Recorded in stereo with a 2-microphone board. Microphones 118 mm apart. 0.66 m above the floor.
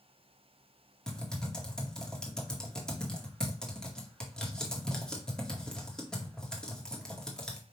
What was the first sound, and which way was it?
Typing on a keyboard, 5° left (ahead or behind).